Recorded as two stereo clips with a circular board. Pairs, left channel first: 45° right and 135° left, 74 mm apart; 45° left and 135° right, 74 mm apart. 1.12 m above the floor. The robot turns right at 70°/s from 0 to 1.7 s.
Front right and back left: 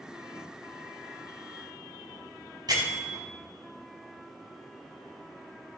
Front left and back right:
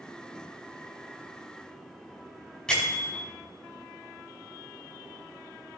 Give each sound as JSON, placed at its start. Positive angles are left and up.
{"t": 2.7, "sound": "a bell", "azimuth_deg": 125, "distance_m": 4.5}